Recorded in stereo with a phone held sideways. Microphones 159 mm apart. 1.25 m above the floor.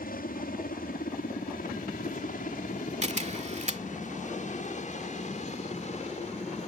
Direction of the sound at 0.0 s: 65° left (ahead or behind).